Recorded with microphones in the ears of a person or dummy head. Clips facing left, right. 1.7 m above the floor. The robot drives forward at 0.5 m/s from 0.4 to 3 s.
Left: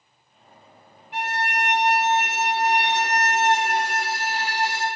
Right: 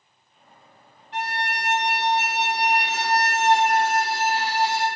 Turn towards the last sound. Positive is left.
turn(degrees=20)  # may be behind; listen again after turning